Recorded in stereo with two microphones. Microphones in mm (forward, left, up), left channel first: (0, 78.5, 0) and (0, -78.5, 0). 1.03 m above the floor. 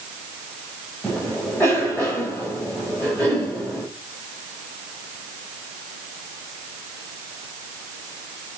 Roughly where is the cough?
Centre.